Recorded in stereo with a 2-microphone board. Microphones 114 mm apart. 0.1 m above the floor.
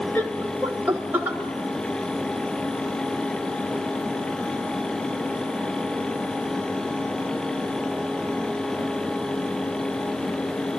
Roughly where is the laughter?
Centre.